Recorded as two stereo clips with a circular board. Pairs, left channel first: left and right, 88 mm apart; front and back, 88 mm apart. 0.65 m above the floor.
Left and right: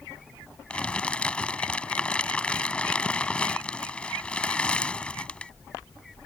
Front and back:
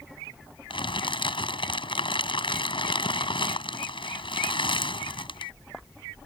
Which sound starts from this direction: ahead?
Crumpling, at 0.7 s.